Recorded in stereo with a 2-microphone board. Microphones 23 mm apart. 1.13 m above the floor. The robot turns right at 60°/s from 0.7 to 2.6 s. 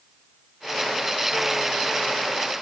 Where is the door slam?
I don't hear a door slam.